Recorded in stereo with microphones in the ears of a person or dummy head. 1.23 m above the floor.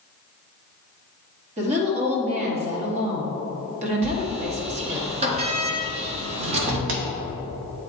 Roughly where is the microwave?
I don't hear a microwave.